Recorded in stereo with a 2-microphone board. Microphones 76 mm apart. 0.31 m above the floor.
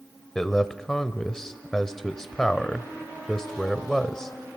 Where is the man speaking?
5° left (ahead or behind), 0.9 m.